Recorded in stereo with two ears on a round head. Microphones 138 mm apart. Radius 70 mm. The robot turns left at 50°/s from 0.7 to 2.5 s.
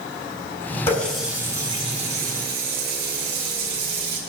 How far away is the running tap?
About 3 m.